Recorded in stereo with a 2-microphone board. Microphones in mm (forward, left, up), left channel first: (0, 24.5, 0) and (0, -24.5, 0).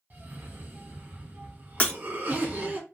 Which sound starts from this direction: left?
Breaking glass, at 1.8 s.